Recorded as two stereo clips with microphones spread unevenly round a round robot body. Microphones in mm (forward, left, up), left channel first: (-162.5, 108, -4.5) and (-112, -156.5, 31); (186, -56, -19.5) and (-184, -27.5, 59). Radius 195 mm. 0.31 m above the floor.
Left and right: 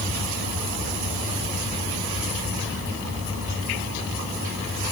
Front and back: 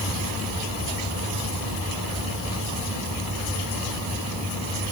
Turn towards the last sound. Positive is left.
No sound to turn to.